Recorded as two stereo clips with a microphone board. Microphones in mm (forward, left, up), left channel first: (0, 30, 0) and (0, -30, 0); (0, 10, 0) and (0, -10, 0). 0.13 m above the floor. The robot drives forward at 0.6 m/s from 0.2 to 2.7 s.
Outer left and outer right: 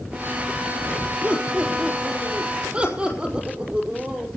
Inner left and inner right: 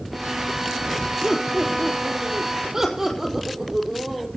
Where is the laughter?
25° right (ahead or behind), 4 m; by 4.3 s 20° right (ahead or behind), 4.5 m.